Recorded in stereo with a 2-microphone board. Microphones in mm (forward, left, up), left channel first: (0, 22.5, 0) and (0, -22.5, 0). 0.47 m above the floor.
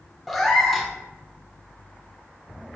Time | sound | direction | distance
0.3 | a cat meowing | 5° left (ahead or behind) | 0.6 m